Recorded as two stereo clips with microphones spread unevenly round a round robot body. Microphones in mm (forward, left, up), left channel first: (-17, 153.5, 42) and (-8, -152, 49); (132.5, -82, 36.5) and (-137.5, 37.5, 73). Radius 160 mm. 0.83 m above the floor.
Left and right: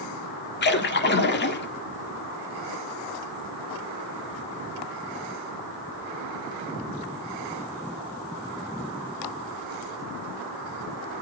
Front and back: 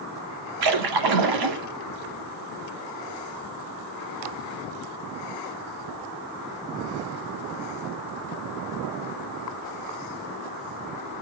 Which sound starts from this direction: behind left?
A splash, at 0.6 s.